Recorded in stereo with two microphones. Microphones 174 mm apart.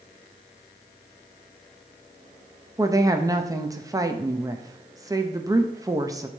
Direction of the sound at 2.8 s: 20° right (ahead or behind).